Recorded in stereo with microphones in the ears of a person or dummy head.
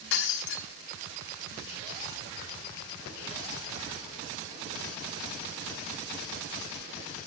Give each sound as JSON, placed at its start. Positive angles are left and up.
{"t": 0.1, "sound": "breaking glass", "side_deg": 65, "distance_m": 1.2}